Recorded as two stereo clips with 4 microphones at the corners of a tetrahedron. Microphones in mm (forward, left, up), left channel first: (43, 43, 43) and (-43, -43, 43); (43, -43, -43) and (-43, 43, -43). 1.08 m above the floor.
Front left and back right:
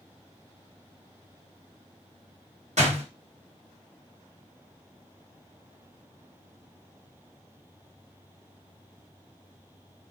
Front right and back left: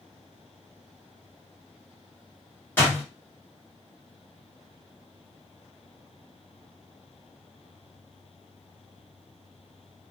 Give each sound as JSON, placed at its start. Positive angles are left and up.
{"t": 2.8, "sound": "a door slam", "azimuth_deg": -120, "distance_m": 1.5}